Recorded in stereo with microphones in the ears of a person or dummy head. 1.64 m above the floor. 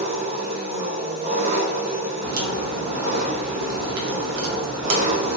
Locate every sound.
0.0 s an engine running: 35° right (ahead or behind), 0.7 m
2.2 s a crack: 65° right (ahead or behind), 0.7 m